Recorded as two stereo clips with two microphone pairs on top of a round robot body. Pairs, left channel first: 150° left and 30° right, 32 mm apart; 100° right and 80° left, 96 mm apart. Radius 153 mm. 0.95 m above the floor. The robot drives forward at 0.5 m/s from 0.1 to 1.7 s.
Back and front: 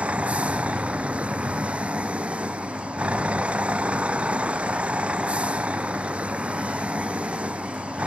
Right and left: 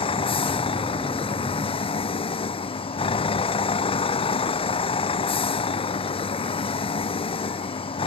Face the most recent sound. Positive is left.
turn(degrees=-80)